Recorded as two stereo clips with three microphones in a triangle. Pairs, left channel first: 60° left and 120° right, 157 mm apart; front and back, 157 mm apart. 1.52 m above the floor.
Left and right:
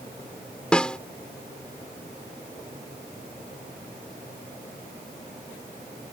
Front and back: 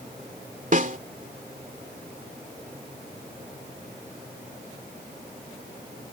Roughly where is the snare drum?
Behind left.